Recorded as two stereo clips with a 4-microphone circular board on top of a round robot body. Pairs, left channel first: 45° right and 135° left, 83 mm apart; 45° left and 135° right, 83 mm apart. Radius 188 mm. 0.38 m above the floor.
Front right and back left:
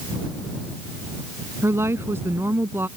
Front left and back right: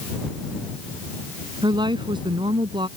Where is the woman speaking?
165° right; by 2.9 s 160° right.